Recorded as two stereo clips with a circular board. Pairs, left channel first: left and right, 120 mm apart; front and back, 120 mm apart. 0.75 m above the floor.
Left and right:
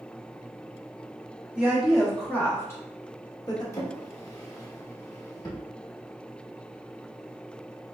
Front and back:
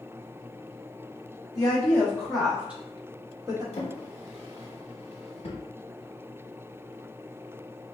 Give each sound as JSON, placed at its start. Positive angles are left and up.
{"t": 1.6, "sound": "a woman speaking", "azimuth_deg": -15, "distance_m": 0.9}
{"t": 3.7, "sound": "a drawer", "azimuth_deg": 30, "distance_m": 0.8}